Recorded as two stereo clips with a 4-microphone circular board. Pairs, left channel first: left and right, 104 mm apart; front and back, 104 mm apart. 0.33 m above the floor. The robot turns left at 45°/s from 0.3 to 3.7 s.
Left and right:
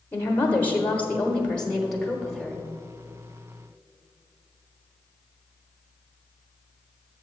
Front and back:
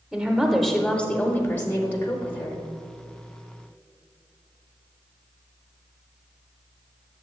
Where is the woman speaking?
90° left, 0.9 m; by 2.6 s 15° right, 0.9 m.